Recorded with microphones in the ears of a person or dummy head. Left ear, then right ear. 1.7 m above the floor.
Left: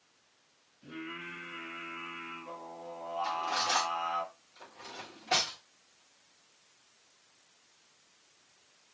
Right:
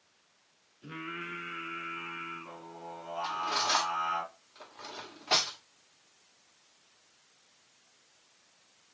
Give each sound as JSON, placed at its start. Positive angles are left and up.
{"t": 0.8, "sound": "singing", "side_deg": -55, "distance_m": 4.0}
{"t": 3.2, "sound": "cutlery clinking", "side_deg": -45, "distance_m": 1.7}